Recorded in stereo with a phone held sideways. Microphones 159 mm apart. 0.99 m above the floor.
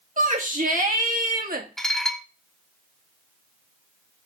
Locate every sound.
0.2 s a shout: 55° right (ahead or behind), 2.5 m; by 1.7 s 65° right (ahead or behind), 1.5 m
1.8 s dishes clattering: 5° left (ahead or behind), 0.7 m